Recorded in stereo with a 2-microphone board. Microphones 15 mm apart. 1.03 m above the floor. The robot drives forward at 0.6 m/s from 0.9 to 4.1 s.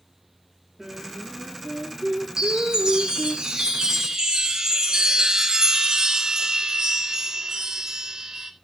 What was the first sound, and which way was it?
Singing, 25° right (ahead or behind).